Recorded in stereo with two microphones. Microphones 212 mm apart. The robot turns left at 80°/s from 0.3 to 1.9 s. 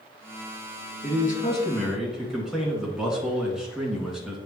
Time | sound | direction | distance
1.0 | a man speaking | 65° left | 2 m